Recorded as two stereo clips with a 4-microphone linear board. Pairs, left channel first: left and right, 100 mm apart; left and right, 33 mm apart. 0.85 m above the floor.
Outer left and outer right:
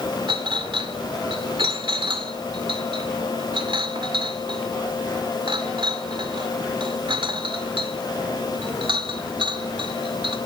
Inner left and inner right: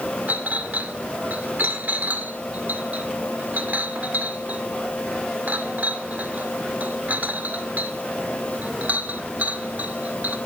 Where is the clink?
60° right (ahead or behind), 1.8 m.